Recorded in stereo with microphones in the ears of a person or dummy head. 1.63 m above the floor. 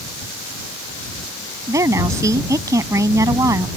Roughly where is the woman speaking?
Right.